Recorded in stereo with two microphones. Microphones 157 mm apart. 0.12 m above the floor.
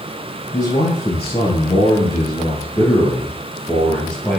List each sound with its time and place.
0.5 s a man speaking: 50° left (ahead or behind), 2 m; by 4.4 s 5° left (ahead or behind), 2.5 m